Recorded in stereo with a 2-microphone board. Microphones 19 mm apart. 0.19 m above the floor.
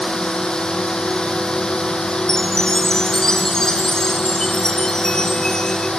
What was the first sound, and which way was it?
A drone, 40° left (ahead or behind).